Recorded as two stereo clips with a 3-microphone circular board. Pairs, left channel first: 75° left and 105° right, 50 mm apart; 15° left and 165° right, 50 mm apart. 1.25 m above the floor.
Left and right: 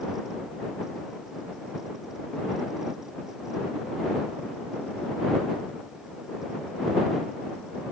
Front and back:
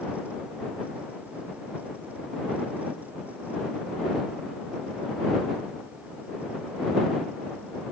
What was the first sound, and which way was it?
Only background noise.